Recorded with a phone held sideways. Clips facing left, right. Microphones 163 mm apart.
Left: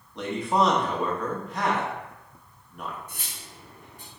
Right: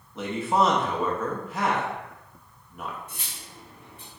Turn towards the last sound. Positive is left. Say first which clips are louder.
# even
turn(degrees=45)  # may be behind; listen again after turning